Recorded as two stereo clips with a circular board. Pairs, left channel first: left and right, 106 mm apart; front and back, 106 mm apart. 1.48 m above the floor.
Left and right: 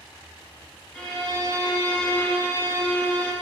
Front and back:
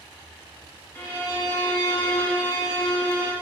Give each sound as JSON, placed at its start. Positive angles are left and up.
{"t": 0.9, "sound": "a violin", "azimuth_deg": 30, "distance_m": 0.8}